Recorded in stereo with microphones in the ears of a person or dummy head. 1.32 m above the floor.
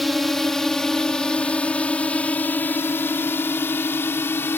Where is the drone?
5° left (ahead or behind); by 4.6 s 15° left (ahead or behind).